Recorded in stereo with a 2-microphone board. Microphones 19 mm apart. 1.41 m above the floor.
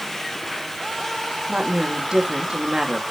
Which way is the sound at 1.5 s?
45° right (ahead or behind).